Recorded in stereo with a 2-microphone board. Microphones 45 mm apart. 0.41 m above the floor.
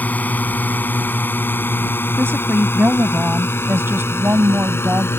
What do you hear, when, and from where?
0.0 s a drone: 40° left (ahead or behind); by 5.2 s 75° left (ahead or behind)
2.2 s a woman speaking: 65° right (ahead or behind)